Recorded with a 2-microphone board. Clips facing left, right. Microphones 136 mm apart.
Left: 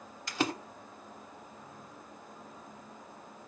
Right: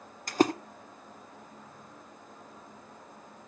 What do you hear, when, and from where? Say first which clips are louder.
0.3 s a splash: right 8 dB; 45° right (ahead or behind), 1.3 m